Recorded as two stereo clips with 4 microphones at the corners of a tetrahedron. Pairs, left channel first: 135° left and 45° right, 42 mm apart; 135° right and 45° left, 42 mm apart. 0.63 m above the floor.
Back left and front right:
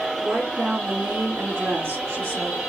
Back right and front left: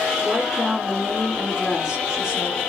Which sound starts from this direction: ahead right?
A woman speaking, at 0.2 s.